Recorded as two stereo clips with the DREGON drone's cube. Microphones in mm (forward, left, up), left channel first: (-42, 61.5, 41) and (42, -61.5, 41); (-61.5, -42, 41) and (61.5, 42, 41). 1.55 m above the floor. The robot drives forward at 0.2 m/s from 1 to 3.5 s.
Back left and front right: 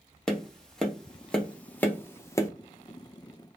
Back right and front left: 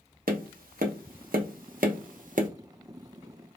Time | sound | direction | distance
0.3 | tapping | 40° left | 0.8 m